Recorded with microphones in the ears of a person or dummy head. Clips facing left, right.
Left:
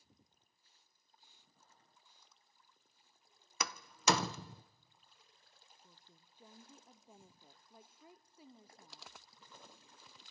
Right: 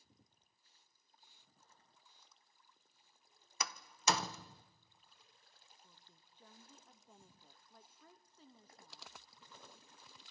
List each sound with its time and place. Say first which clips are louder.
3.6 s a door slam: left 3 dB; 55° left (ahead or behind), 0.5 m
5.8 s a woman speaking: left 2 dB; 10° left (ahead or behind), 0.6 m